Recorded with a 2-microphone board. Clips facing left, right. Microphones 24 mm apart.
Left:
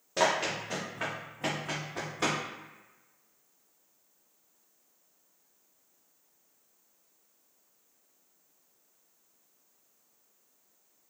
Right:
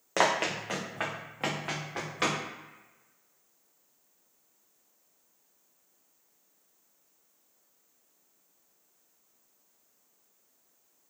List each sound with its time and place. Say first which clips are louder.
0.2 s running footsteps: right 1 dB; 75° right (ahead or behind), 0.7 m; by 2.4 s 50° right (ahead or behind), 1.7 m